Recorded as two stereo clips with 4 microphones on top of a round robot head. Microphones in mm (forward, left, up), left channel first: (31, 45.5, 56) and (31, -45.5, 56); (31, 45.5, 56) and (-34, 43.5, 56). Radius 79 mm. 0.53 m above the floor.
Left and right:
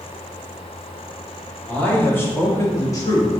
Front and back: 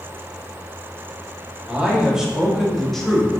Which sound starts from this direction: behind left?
A man speaking, at 1.7 s.